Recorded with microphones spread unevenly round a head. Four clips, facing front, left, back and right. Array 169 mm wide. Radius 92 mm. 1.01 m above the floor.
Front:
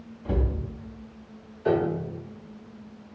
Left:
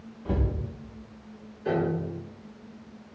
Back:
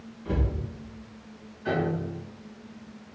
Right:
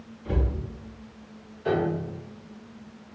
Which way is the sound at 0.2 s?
40° left.